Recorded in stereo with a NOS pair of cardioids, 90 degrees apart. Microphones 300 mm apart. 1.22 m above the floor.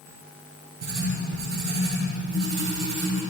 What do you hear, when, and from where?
0.8 s writing: 45° right, 3.5 m